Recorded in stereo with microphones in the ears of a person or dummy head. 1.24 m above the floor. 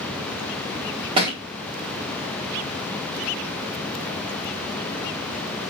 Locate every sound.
1.2 s a thud: 25° right (ahead or behind), 0.9 m